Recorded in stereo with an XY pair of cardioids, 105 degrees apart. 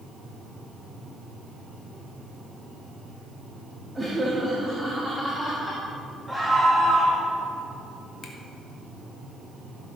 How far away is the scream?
About 2 m.